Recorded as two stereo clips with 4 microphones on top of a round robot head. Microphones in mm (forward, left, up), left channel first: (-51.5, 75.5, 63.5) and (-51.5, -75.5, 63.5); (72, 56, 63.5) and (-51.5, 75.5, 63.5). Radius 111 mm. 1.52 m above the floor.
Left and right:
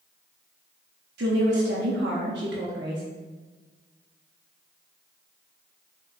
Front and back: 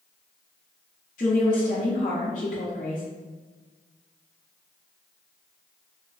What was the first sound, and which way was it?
A woman speaking, 60° right.